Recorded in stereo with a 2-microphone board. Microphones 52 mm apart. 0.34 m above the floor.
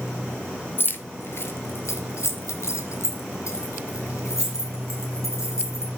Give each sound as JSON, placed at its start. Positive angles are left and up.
{"t": 0.8, "sound": "keys jangling", "side_deg": 45, "distance_m": 0.8}